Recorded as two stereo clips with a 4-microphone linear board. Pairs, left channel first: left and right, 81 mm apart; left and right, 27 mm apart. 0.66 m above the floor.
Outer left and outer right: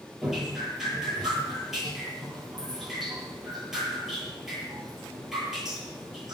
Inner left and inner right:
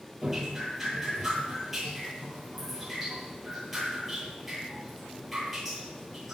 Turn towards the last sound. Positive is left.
turn(degrees=-5)  # may be behind; listen again after turning